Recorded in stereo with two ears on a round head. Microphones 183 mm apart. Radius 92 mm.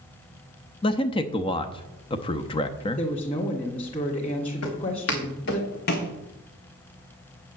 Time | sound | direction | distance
0.8 | a man speaking | 25° left (ahead or behind) | 0.7 m
3.0 | a woman speaking | 25° left (ahead or behind) | 1.8 m
4.6 | footsteps | 70° left (ahead or behind) | 4 m